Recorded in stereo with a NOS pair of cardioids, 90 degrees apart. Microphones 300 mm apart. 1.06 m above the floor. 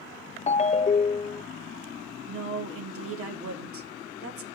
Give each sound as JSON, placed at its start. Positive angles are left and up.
{"t": 0.5, "sound": "a ringtone", "azimuth_deg": 25, "distance_m": 0.5}
{"t": 2.3, "sound": "a woman speaking", "azimuth_deg": -50, "distance_m": 3.0}